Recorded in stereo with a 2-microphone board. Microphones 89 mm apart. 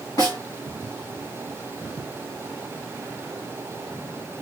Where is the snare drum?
50° left (ahead or behind), 1.8 m.